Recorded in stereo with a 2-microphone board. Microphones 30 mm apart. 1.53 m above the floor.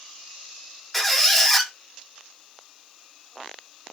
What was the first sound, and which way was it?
A squeak, 5° left (ahead or behind).